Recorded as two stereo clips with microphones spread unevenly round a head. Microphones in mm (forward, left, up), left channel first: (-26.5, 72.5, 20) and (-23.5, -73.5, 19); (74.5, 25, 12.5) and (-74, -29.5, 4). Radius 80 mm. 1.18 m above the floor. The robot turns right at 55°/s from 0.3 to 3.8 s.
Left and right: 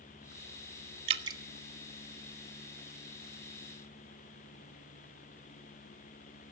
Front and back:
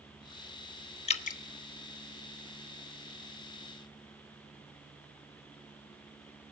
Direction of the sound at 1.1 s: 35° right.